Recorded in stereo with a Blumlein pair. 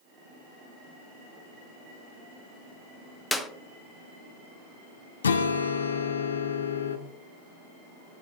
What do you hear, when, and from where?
3.3 s a clap: 5° left, 0.6 m
5.2 s a guitar: 70° left, 0.6 m